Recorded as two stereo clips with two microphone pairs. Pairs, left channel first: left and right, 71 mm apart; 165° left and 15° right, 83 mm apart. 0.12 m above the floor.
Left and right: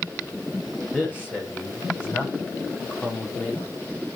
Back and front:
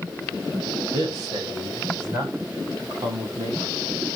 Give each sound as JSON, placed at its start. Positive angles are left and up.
{"t": 0.9, "sound": "a man speaking", "azimuth_deg": 25, "distance_m": 8.0}